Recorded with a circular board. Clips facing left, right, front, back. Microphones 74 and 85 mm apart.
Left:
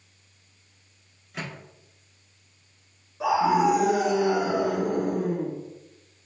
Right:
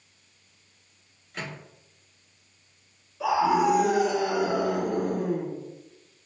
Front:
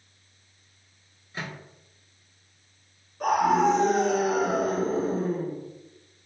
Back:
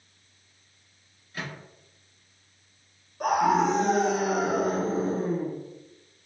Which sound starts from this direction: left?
A scream, at 3.2 s.